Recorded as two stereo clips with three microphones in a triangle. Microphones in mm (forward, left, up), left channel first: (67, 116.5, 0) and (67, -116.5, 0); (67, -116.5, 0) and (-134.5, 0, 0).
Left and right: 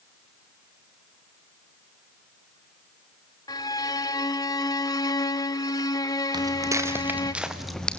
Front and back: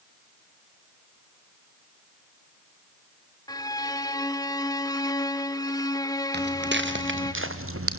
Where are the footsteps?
165° right, 2.5 m; by 8.0 s 175° left, 2 m.